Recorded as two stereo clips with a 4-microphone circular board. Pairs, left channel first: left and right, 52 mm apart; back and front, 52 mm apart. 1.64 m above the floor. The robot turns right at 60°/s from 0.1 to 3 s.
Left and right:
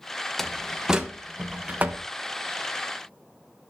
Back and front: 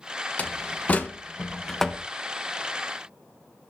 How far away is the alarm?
I don't hear an alarm.